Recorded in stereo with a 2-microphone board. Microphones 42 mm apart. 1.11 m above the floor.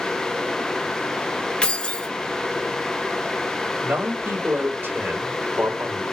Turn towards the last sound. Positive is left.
turn(degrees=-70)  # may be behind; listen again after turning